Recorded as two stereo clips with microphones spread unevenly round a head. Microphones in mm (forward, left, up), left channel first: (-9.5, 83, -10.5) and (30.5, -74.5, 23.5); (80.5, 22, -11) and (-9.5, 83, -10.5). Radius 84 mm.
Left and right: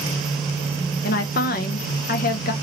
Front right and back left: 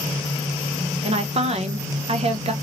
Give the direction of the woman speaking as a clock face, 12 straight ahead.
8 o'clock.